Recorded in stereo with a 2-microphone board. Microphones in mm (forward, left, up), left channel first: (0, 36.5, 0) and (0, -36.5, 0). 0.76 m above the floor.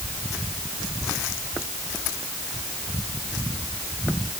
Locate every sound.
Only background noise.